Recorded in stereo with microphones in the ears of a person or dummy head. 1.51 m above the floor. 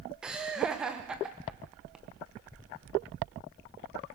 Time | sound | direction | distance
0.2 | laughter | 5° right (ahead or behind) | 1.5 m